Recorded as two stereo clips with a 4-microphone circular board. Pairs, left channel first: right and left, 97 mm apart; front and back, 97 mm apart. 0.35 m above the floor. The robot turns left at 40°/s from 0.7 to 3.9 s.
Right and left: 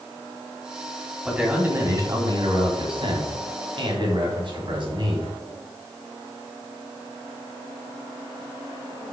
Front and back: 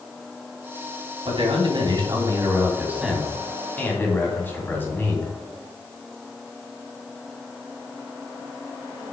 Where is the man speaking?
175° left, 3 m; by 5.3 s 65° left, 3 m.